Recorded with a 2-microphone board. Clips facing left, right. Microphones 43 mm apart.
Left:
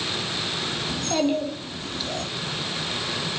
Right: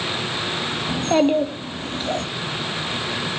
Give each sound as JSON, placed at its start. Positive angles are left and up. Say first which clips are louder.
{"t": 0.9, "sound": "a child speaking", "louder": "right 6 dB", "side_deg": -30, "distance_m": 1.2}